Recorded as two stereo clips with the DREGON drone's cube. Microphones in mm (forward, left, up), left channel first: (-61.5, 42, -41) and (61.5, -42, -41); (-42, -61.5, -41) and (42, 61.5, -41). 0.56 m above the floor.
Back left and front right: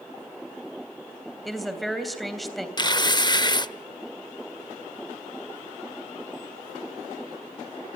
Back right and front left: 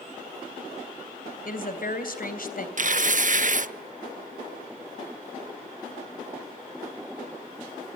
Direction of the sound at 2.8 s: 85° left.